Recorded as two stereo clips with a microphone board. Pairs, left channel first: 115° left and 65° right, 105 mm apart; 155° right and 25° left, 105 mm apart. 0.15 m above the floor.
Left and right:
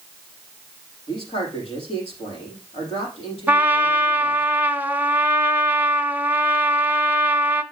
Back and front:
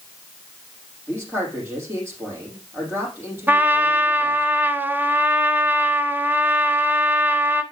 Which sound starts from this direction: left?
A man speaking, at 1.1 s.